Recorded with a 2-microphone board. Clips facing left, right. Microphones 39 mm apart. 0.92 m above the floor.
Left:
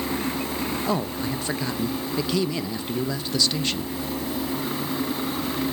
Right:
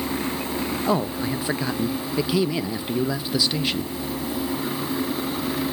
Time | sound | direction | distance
0.9 | a man speaking | 15° right (ahead or behind) | 0.6 m